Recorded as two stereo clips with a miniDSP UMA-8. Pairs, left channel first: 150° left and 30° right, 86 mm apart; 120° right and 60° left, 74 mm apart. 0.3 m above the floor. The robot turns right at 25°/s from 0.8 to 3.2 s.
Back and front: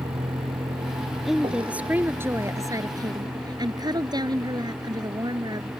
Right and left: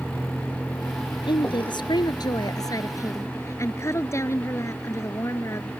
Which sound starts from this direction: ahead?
A vehicle, at 0.0 s.